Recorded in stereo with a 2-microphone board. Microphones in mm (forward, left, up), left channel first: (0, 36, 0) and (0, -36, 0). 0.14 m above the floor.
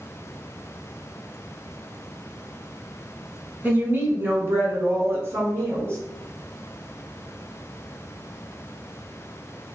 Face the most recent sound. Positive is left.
turn(degrees=-35)  # may be behind; listen again after turning